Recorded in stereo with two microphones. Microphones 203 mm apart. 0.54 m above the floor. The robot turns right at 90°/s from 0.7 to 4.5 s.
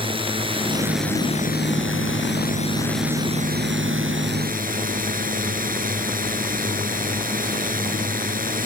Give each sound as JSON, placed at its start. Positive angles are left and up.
{"t": 0.0, "sound": "a drone", "azimuth_deg": -25}